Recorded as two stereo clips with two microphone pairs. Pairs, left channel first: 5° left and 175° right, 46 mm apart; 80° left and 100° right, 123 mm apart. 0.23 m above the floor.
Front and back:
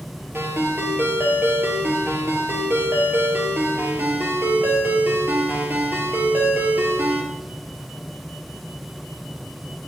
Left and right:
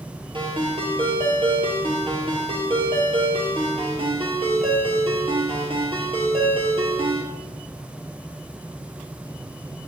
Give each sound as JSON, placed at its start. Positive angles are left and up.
{"t": 0.3, "sound": "a ringtone", "azimuth_deg": -140, "distance_m": 3.0}